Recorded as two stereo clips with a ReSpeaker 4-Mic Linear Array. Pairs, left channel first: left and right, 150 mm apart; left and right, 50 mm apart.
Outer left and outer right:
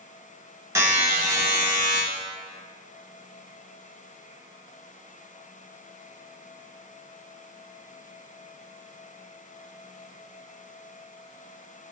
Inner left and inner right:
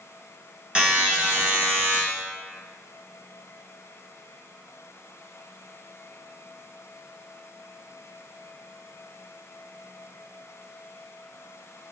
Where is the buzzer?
20° right (ahead or behind), 0.7 m.